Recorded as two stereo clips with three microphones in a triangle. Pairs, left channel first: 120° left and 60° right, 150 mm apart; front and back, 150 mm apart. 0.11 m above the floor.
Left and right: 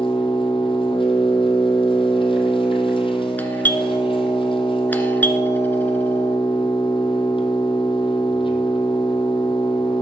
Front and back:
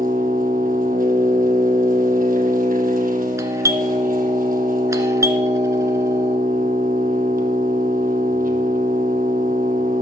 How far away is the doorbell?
About 1.5 m.